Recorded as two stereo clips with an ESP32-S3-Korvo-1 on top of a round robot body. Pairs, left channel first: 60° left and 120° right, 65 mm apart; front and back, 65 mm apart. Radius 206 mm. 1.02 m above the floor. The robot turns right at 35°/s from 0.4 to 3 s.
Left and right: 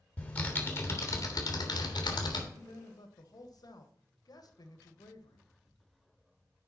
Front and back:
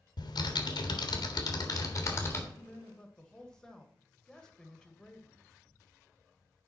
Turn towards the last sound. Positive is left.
turn(degrees=80)